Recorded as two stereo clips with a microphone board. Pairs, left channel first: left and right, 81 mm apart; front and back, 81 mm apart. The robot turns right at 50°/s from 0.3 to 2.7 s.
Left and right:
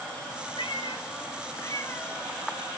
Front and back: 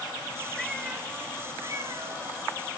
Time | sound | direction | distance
0.6 | a cat meowing | 85° left | 2 m